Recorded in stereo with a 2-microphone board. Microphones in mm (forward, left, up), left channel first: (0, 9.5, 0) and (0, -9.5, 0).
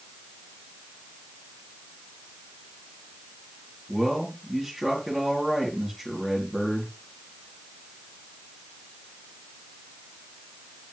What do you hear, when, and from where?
3.9 s a man speaking: 5° left (ahead or behind), 5.5 m